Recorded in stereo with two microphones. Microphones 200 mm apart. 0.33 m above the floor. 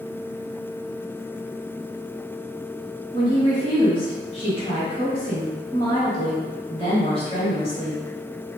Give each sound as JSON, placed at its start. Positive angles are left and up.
{"t": 3.1, "sound": "a woman speaking", "side_deg": 25, "distance_m": 1.3}